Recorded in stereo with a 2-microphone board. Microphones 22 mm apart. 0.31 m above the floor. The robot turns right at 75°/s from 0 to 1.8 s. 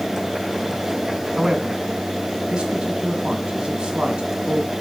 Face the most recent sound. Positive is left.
turn(degrees=-55)  # may be behind; listen again after turning